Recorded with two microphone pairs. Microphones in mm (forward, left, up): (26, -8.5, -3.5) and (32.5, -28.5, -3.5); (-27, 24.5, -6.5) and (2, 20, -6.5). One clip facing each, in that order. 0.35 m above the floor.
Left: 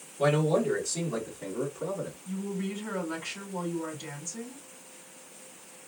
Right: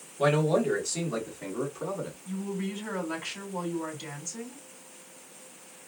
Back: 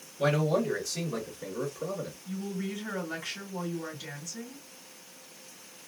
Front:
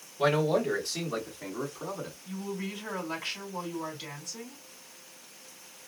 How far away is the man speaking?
About 2.5 m.